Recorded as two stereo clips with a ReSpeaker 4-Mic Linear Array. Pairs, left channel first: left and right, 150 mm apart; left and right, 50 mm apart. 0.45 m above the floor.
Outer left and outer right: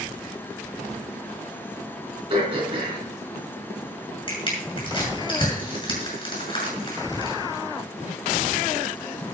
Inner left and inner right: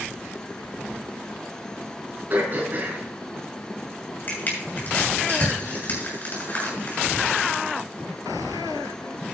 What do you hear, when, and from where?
2.3 s throat clearing: 35° right (ahead or behind), 4 m
4.3 s crushing: 35° left (ahead or behind), 7 m